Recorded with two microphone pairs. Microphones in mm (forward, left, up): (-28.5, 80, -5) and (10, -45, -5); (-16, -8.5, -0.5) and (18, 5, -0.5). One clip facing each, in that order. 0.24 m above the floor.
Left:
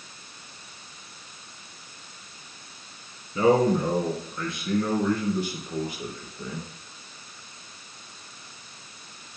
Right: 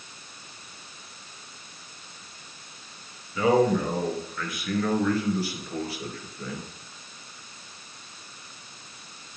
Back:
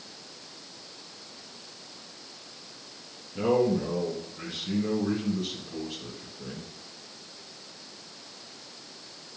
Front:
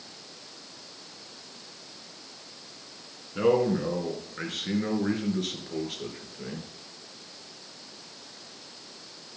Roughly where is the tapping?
I don't hear tapping.